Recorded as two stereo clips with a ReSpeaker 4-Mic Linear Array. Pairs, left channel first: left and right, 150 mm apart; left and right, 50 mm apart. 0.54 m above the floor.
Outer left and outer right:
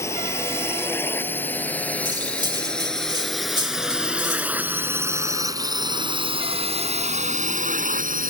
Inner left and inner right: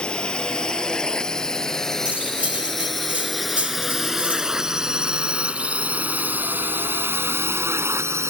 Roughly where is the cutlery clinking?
Right.